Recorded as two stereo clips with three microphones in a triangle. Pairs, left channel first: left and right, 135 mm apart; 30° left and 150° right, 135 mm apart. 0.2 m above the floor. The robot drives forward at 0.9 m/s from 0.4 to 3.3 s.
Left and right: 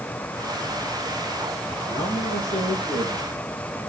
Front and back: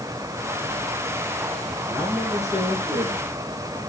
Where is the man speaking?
120° left, 4 m; by 3.9 s 135° left, 5 m.